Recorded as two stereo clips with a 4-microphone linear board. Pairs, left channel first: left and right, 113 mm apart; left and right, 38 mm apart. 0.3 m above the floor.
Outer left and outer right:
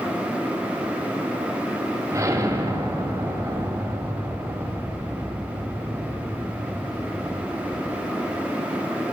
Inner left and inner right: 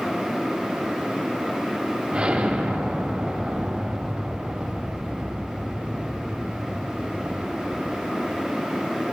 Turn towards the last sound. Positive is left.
turn(degrees=-30)  # may be behind; listen again after turning